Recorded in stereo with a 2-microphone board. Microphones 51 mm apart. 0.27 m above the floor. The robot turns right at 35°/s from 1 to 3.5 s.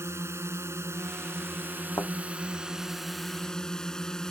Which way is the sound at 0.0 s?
75° right.